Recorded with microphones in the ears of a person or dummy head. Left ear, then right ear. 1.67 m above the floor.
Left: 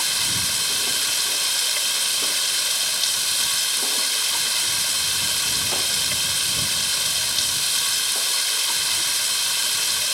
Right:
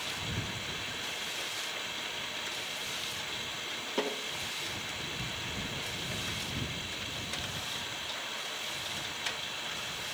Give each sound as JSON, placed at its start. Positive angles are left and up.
{"t": 0.0, "sound": "running water", "side_deg": 80}